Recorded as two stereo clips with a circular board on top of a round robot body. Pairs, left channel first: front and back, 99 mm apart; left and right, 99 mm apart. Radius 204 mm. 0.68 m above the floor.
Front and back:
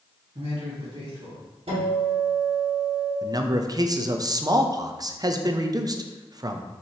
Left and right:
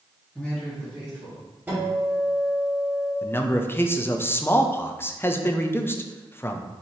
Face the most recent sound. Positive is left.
turn(degrees=150)